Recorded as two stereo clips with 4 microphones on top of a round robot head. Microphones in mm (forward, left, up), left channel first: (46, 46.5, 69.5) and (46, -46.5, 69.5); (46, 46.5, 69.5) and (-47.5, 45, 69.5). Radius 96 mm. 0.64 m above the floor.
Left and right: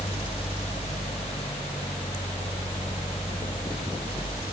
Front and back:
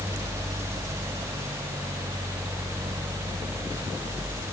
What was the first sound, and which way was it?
Only background noise.